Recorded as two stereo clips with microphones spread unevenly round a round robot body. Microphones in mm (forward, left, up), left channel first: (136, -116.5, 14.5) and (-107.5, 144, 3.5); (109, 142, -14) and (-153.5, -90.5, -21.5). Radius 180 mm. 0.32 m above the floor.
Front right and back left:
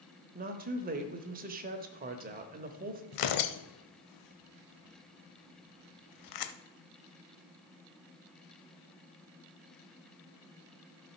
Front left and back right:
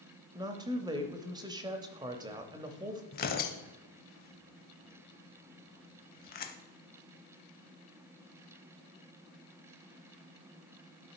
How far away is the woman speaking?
About 1.0 m.